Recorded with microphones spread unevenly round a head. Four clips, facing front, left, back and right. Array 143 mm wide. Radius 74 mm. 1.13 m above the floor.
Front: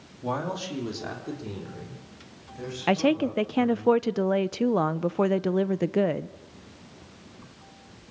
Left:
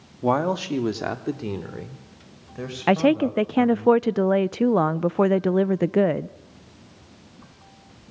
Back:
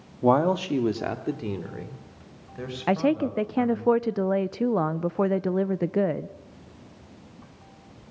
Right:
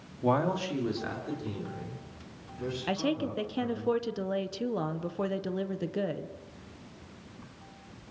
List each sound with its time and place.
0.2 s a man speaking: 160° left, 1.7 m; by 3.9 s 110° left, 6.5 m
2.9 s a woman speaking: 85° left, 0.6 m